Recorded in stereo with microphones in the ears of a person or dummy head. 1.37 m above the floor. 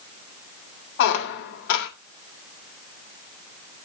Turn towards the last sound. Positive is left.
turn(degrees=65)  # may be behind; listen again after turning